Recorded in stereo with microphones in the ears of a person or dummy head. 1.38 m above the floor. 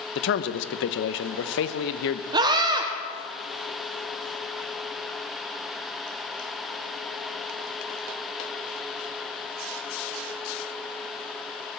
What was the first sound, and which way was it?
A man speaking, 70° left (ahead or behind).